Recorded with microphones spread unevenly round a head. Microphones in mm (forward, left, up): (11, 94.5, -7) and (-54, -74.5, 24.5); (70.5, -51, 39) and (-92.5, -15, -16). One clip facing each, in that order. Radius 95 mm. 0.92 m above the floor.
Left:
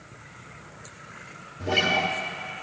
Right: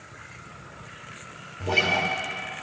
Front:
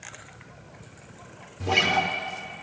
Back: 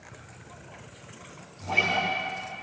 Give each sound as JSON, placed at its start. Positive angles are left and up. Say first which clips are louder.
{"t": 1.6, "sound": "a guitar", "louder": "left 1 dB, front 4 dB", "azimuth_deg": -5, "distance_m": 1.0}